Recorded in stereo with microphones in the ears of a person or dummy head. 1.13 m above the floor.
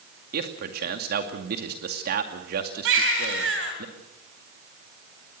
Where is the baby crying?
75° right (ahead or behind), 3 m.